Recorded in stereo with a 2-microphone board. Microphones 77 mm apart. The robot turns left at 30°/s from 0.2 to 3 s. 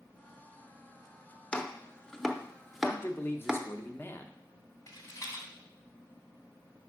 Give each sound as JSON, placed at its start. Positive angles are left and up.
{"t": 1.5, "sound": "chopping", "side_deg": 15, "distance_m": 0.6}
{"t": 2.8, "sound": "a man speaking", "side_deg": 30, "distance_m": 0.7}
{"t": 4.9, "sound": "a rattle", "side_deg": 50, "distance_m": 1.6}